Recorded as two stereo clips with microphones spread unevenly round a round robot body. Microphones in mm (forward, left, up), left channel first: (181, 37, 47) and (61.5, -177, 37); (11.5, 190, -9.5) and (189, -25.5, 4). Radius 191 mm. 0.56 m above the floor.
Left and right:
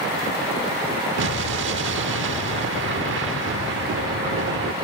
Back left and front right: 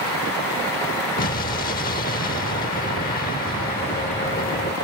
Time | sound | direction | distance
1.2 | an explosion | 165° right | ?